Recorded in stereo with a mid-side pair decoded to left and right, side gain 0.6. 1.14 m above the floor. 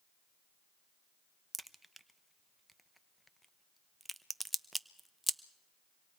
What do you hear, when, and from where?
1.5 s a crack: 5° right, 0.8 m